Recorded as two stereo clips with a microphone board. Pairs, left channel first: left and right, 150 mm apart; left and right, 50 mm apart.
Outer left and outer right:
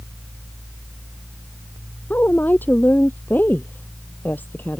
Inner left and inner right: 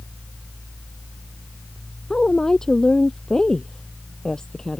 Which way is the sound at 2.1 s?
10° left (ahead or behind).